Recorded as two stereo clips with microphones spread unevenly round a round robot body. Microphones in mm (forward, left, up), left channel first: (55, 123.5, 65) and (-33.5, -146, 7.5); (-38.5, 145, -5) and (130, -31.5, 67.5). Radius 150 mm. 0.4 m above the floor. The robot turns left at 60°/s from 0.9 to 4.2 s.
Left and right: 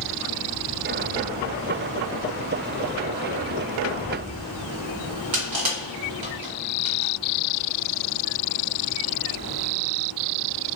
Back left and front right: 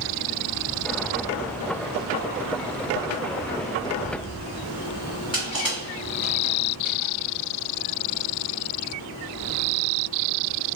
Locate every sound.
5.3 s crushing: 135° right, 1.8 m